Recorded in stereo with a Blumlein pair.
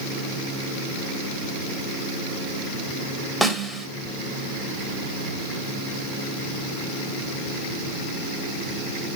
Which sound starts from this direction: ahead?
A snare drum, at 3.4 s.